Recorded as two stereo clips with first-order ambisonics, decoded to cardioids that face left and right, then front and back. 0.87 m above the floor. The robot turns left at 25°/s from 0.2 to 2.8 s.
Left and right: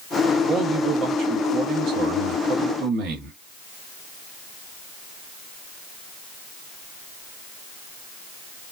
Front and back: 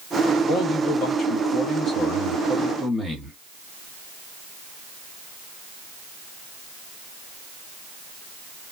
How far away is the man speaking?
About 1.3 m.